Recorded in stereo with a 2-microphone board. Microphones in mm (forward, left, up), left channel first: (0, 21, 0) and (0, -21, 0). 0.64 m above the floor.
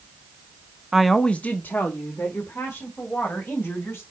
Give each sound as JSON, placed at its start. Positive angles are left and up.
{"t": 0.9, "sound": "a woman speaking", "side_deg": -10, "distance_m": 0.7}